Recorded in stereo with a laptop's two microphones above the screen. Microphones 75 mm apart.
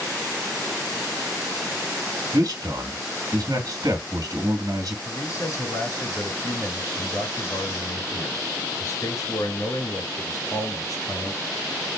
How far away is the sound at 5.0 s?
About 2.5 m.